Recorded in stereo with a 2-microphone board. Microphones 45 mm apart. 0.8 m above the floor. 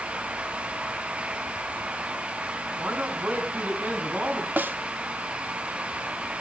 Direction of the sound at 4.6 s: 45° right (ahead or behind).